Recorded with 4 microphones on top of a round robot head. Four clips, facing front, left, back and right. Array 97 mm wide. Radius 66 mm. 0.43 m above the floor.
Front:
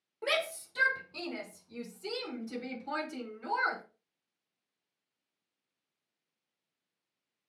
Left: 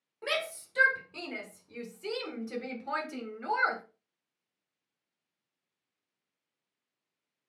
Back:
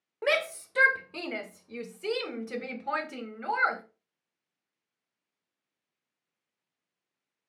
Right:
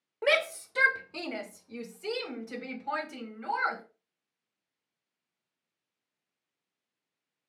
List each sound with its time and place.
0.2 s a shout: 140° right, 2.5 m; by 3.8 s 160° left, 3 m